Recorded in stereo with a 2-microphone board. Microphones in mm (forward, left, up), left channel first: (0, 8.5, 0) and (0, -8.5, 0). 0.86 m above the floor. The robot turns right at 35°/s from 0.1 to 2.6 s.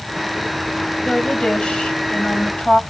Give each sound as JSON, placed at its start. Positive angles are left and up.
{"t": 1.1, "sound": "a woman speaking", "azimuth_deg": 70, "distance_m": 5.0}